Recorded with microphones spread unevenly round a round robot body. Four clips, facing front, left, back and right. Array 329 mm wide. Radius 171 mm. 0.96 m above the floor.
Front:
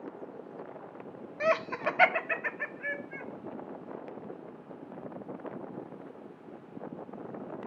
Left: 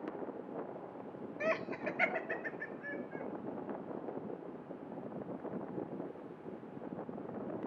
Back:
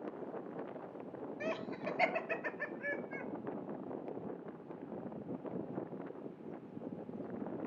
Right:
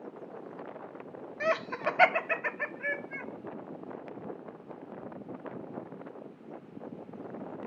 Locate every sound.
1.4 s laughter: 20° right, 0.9 m; by 3.3 s 80° right, 1.7 m